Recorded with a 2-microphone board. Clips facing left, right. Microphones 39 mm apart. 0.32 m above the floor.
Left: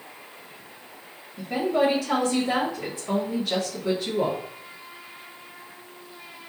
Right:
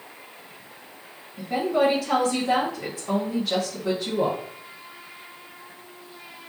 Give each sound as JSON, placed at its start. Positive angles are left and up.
{"t": 1.4, "sound": "a woman speaking", "side_deg": 0, "distance_m": 1.4}